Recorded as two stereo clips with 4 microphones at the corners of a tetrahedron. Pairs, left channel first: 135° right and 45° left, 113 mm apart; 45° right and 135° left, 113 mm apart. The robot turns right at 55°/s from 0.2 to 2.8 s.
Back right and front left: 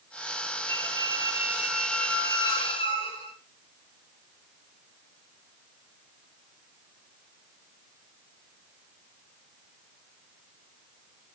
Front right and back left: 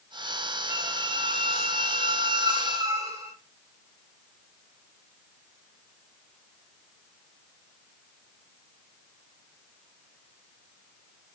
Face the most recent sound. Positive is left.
turn(degrees=-170)